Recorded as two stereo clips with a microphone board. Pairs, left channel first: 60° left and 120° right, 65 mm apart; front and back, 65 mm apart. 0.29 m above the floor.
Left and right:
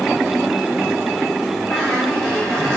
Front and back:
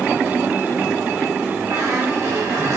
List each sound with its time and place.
1.7 s a squeak: 140° left, 9 m